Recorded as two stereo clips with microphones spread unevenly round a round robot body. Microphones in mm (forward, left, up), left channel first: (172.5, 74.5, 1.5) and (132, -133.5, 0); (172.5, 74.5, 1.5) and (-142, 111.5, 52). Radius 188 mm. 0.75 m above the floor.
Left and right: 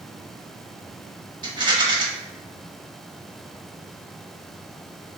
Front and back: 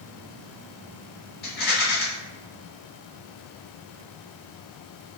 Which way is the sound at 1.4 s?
40° right.